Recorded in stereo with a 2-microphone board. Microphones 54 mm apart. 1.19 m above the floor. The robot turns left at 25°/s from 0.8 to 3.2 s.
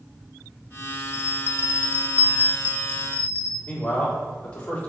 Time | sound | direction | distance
1.1 | a bell | 75° left | 0.6 m
3.7 | a man speaking | 25° left (ahead or behind) | 3.5 m